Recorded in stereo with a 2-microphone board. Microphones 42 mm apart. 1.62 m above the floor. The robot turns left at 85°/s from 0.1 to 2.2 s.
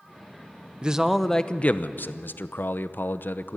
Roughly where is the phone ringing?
I don't hear a phone ringing.